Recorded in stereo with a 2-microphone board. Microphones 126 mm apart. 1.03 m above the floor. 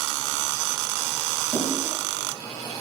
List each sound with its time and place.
1.5 s a splash: 70° left (ahead or behind), 5 m